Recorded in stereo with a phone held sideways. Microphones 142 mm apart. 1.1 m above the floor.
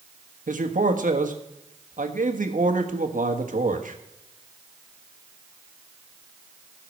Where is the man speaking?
80° right, 1.4 m.